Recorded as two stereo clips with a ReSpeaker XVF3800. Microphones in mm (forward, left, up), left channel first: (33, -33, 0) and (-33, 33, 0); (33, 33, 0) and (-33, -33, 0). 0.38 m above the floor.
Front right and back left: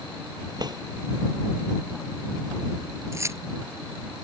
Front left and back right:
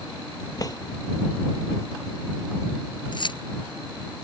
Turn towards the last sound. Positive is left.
turn(degrees=75)